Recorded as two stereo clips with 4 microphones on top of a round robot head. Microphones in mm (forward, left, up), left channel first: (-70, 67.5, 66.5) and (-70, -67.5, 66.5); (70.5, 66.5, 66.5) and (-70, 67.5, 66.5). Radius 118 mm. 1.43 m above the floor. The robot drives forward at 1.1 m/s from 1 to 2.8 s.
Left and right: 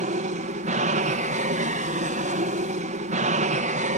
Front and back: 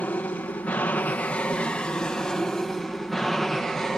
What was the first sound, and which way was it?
An aircraft, 80° right.